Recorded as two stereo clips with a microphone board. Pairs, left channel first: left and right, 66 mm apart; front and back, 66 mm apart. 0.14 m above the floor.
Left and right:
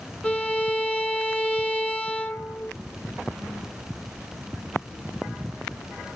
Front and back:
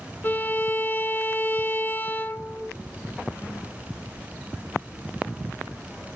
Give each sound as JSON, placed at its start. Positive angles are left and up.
{"t": 0.2, "sound": "a violin", "azimuth_deg": 30, "distance_m": 0.6}